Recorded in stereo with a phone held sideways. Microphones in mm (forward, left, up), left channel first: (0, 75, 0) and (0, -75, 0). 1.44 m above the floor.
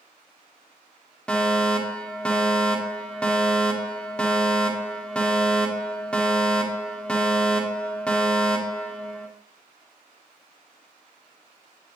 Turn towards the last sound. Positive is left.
turn(degrees=5)  # may be behind; listen again after turning